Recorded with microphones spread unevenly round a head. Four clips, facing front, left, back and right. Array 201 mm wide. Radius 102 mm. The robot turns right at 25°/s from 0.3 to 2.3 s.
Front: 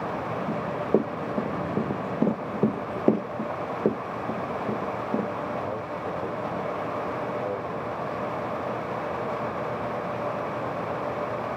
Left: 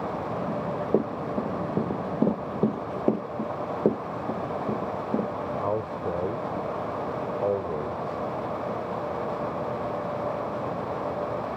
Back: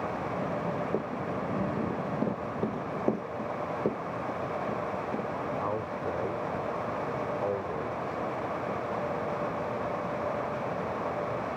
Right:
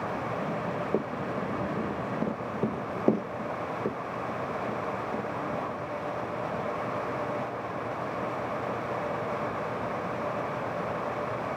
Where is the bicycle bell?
I don't hear a bicycle bell.